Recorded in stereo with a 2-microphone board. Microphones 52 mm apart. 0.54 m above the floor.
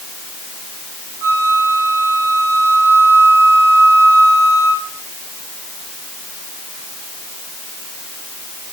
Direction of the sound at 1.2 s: 50° right (ahead or behind).